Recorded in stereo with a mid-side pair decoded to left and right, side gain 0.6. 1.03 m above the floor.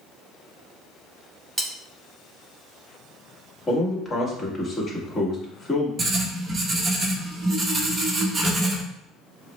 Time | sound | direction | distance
1.6 | cutlery clinking | 10° right | 0.8 m
3.7 | a man speaking | 25° left | 1.7 m
6.0 | writing | 25° right | 1.0 m